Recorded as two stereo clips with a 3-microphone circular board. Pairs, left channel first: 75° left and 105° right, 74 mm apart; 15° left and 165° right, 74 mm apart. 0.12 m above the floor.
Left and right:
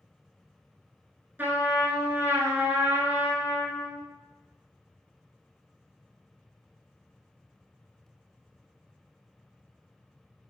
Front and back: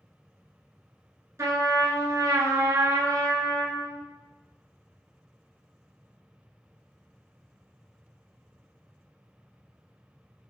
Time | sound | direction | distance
1.4 | a trumpet | 155° right | 0.8 m